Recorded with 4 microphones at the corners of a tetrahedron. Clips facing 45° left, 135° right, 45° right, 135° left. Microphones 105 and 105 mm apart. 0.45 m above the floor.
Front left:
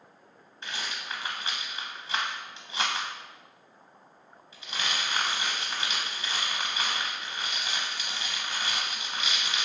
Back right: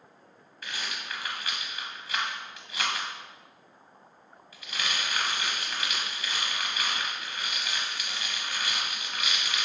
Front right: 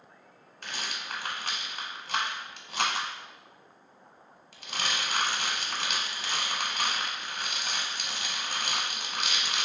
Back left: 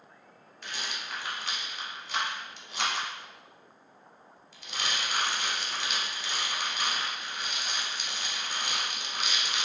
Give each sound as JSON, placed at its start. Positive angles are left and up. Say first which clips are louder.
{"t": 0.6, "sound": "a rattle", "louder": "front left 1 dB, front right 1 dB", "azimuth_deg": -20, "distance_m": 0.6}